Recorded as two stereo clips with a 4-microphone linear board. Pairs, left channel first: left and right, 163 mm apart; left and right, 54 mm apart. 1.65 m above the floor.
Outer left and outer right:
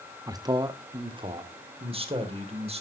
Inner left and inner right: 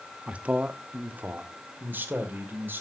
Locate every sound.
0.3 s a man speaking: 20° right (ahead or behind), 0.9 m; by 2.8 s 40° right (ahead or behind), 2.5 m